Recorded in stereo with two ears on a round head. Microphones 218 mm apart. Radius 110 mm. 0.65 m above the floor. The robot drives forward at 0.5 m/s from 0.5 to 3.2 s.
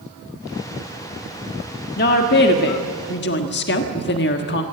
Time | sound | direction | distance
2.0 | a woman speaking | 40° left (ahead or behind) | 1.5 m